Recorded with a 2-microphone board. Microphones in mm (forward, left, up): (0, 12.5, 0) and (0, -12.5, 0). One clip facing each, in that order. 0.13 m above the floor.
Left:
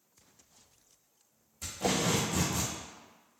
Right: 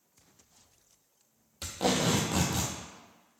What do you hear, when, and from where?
1.6 s tape being pulled: 80° right, 0.7 m